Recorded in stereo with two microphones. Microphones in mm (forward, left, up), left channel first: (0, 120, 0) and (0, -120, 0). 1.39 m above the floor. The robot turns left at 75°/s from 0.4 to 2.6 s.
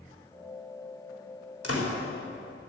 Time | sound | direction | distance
1.6 | a door slam | 85° left | 3.5 m